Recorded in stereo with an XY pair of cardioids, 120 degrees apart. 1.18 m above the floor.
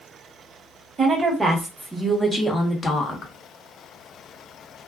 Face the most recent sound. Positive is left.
turn(degrees=35)